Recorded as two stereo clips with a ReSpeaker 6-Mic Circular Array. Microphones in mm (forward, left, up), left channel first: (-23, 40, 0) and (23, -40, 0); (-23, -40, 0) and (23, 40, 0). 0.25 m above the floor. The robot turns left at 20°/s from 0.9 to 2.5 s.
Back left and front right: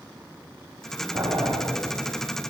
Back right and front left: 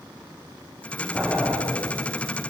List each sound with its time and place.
1.1 s boiling: 25° right, 7.5 m; by 1.6 s 30° right, 7.5 m